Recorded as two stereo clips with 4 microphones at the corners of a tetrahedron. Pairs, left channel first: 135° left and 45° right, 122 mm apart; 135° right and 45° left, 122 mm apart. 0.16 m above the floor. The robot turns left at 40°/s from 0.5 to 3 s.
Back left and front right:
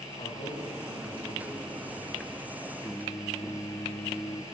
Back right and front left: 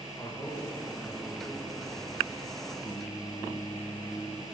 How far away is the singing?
About 1.5 m.